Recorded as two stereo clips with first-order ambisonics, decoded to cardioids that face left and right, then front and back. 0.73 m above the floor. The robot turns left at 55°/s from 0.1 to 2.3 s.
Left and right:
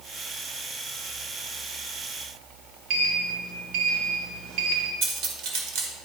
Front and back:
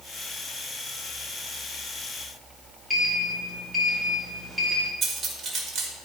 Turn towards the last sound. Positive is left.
turn(degrees=-115)